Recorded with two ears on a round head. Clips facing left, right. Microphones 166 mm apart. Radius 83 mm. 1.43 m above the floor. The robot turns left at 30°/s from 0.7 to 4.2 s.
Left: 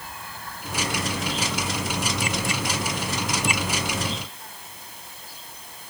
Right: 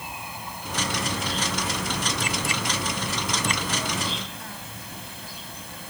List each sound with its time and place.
0.0 s an insect: 15° right; by 5.9 s 120° right